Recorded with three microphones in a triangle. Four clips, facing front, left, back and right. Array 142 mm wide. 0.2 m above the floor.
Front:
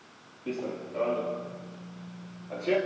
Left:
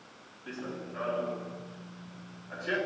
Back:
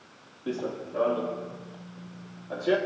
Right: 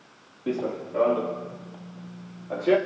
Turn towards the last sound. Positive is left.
turn(degrees=-105)